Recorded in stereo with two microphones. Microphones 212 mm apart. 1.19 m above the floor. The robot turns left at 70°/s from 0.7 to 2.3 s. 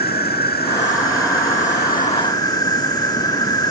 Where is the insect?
130° left; by 3.7 s 20° left.